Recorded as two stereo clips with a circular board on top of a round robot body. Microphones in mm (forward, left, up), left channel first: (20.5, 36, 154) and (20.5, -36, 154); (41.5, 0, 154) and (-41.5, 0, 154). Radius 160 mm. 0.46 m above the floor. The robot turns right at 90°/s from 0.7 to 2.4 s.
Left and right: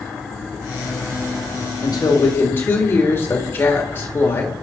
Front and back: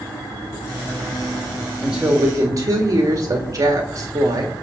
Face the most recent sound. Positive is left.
turn(degrees=145)